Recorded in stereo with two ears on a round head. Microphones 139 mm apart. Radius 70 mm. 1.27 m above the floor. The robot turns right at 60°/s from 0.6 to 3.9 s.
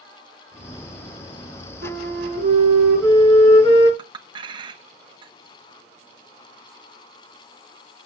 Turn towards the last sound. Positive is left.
turn(degrees=-30)  # may be behind; listen again after turning